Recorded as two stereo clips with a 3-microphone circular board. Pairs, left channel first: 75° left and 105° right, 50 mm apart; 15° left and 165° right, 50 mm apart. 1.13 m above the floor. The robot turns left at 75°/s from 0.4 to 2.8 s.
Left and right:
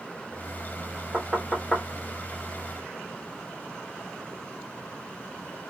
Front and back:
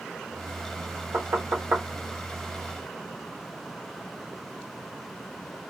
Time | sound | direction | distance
1.1 | knocking | 155° right | 1.1 m